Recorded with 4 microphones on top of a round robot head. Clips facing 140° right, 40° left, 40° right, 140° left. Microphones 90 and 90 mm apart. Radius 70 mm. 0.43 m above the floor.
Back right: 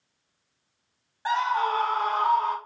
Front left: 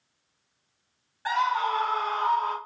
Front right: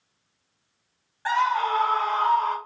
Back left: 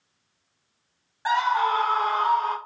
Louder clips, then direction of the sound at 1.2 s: Back right 1 dB, back left 1 dB; 165° right.